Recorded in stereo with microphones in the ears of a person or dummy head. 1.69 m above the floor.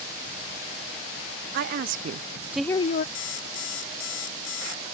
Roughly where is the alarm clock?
Left.